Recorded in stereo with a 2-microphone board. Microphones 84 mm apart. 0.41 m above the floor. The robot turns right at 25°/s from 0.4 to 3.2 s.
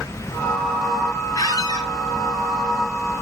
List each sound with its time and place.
1.4 s a squeak: 50° left (ahead or behind), 2.0 m; by 1.9 s 60° left (ahead or behind), 2.0 m